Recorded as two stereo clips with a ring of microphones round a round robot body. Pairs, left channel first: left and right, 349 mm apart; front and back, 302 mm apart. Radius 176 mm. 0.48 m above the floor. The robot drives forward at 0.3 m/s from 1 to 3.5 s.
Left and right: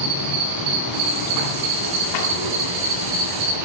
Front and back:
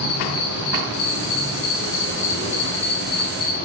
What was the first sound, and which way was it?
An insect, 50° right.